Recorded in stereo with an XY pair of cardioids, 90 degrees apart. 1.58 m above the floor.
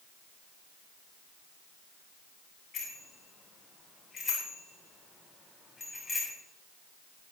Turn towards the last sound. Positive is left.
turn(degrees=20)